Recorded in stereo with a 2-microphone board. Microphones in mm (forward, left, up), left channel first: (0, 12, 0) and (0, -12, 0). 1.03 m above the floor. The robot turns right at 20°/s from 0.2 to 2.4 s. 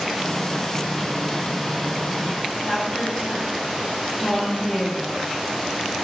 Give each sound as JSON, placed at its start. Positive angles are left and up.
{"t": 2.7, "sound": "a woman speaking", "side_deg": 25, "distance_m": 0.7}